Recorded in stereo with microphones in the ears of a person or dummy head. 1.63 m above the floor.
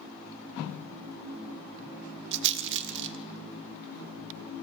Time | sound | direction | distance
2.3 | a rattle | 70° right (ahead or behind) | 1.3 m